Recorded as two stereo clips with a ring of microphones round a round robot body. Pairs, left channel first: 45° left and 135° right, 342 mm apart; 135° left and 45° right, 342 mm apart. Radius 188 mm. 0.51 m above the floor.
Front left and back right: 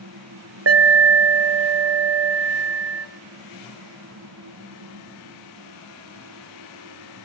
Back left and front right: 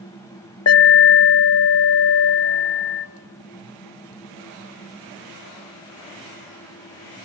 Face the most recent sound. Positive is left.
turn(degrees=180)